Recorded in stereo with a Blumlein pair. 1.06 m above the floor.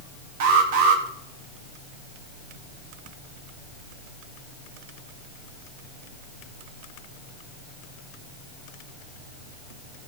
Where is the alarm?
50° right, 1.8 m.